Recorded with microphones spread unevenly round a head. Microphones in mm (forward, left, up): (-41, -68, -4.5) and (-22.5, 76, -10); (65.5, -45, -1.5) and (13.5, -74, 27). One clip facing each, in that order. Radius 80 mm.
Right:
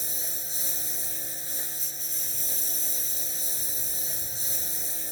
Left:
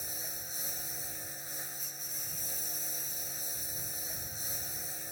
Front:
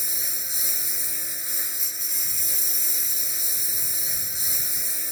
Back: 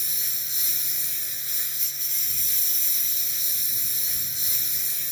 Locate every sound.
0.0 s a lawn mower: 40° right